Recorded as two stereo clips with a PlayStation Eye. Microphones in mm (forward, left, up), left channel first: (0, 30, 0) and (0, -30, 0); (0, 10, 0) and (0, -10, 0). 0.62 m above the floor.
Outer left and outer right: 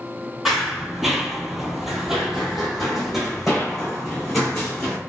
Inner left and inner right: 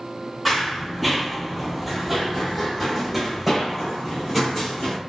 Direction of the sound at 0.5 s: Centre (ahead or behind).